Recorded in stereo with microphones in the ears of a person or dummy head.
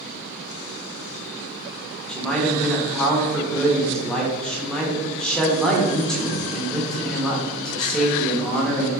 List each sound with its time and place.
2.1 s a man speaking: 5° left (ahead or behind), 0.9 m